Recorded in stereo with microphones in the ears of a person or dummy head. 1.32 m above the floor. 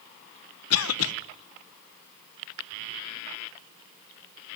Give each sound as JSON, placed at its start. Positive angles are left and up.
{"t": 0.7, "sound": "a cough", "side_deg": 80, "distance_m": 1.1}